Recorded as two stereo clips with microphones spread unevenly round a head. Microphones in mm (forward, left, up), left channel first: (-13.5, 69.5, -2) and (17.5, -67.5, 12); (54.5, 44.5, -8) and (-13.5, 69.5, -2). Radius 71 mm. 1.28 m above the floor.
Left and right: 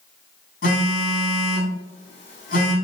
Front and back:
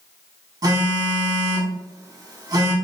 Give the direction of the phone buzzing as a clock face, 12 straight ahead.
7 o'clock.